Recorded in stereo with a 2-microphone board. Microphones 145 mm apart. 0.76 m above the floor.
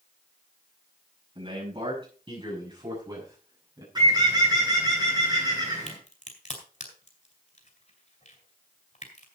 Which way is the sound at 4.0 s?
30° right (ahead or behind).